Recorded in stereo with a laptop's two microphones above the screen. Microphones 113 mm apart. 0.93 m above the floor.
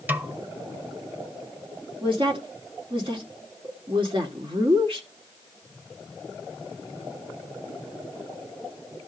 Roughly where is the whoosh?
I don't hear a whoosh.